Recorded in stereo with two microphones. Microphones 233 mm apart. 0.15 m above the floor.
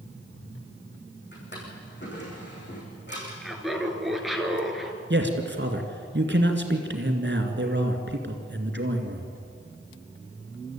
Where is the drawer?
45° left (ahead or behind), 6.5 m.